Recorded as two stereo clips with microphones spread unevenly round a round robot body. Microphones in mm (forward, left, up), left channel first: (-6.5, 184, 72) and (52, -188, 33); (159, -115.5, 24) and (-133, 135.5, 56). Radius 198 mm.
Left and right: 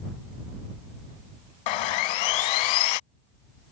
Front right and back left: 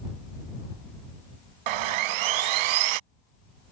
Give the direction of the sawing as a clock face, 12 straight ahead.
8 o'clock.